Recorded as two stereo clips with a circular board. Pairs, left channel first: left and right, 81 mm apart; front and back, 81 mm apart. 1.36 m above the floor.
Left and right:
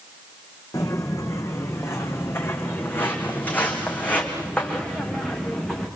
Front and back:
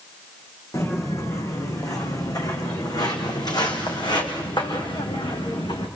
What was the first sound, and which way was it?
Footsteps, 50° left.